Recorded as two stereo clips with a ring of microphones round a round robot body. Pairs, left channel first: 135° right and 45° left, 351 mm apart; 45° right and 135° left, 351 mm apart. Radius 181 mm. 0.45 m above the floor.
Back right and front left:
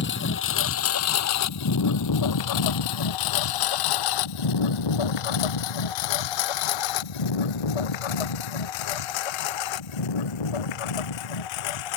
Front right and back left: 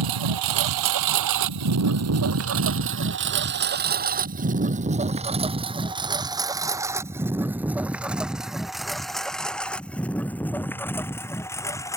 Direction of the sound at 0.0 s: 165° left.